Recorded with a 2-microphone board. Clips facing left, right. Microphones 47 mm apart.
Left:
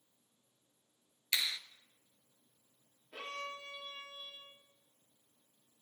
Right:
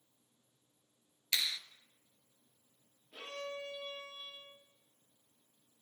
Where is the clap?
10° left (ahead or behind), 1.1 m.